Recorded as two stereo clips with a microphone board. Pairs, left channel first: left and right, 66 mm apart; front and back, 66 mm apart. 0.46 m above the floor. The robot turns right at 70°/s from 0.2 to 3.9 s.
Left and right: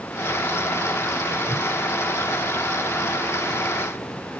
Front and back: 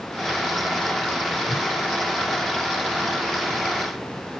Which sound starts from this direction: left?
A whoosh, at 1.5 s.